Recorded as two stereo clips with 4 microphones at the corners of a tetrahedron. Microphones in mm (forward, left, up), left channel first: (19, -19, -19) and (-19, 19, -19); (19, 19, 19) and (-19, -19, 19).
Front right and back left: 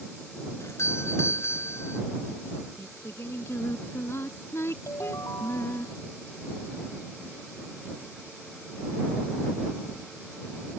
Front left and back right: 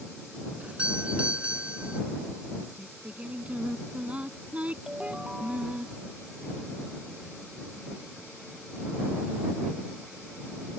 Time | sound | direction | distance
0.6 | a doorbell | 70° right | ?
2.8 | singing | 70° right | ?
4.9 | a ringtone | 55° right | ?